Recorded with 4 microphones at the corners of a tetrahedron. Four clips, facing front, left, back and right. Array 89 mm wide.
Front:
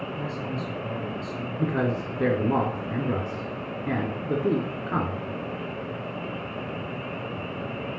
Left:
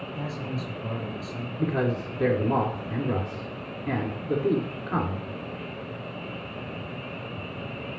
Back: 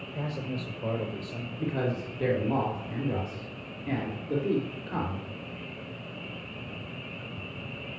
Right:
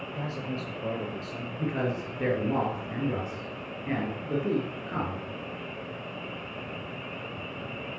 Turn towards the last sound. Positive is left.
turn(degrees=20)